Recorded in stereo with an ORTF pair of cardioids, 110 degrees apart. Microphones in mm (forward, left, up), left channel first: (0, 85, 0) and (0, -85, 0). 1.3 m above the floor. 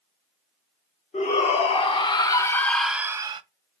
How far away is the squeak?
I don't hear a squeak.